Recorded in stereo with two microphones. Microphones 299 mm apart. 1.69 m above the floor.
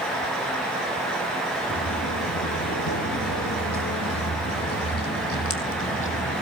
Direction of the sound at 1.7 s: 65° left (ahead or behind).